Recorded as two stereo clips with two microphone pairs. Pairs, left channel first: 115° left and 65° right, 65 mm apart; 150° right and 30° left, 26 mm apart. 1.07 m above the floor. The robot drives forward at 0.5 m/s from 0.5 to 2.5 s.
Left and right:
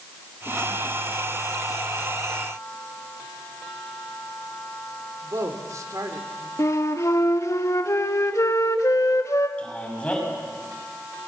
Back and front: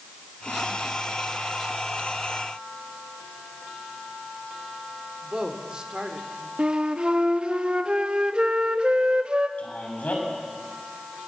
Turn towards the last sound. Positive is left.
turn(degrees=-175)